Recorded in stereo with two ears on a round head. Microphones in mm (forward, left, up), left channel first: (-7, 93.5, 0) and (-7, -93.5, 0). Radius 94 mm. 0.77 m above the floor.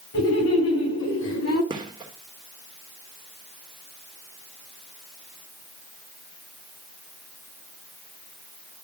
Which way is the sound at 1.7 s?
20° right (ahead or behind).